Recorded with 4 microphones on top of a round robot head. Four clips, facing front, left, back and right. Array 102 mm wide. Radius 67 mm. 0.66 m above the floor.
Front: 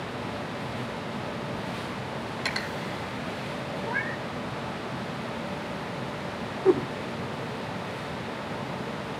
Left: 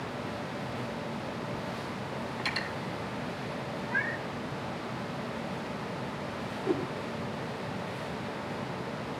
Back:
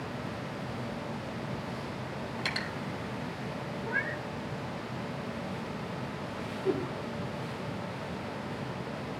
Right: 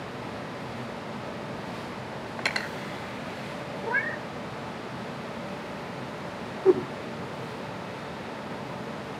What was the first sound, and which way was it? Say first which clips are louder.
Cutlery clinking: right 6 dB, front 3 dB; 85° right.